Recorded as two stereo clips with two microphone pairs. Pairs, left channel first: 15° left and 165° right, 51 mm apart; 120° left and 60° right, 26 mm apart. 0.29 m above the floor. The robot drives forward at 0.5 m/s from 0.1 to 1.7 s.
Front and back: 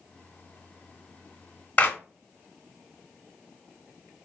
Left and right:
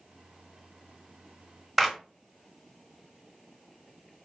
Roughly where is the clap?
Ahead.